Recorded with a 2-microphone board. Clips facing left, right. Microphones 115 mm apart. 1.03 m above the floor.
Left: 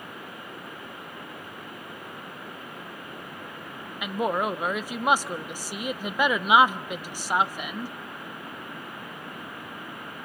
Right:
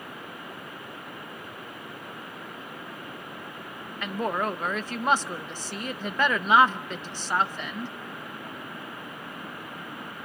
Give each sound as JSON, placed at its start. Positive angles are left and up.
{"t": 4.0, "sound": "a woman speaking", "side_deg": 10, "distance_m": 0.6}